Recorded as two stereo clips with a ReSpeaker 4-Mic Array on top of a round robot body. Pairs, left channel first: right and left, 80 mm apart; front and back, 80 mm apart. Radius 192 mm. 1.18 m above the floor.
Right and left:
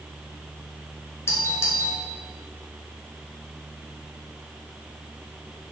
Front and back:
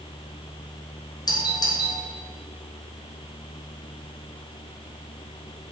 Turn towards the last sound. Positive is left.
turn(degrees=-30)